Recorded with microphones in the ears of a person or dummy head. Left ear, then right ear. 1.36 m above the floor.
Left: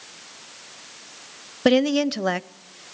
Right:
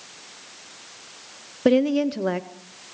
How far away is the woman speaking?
About 0.5 m.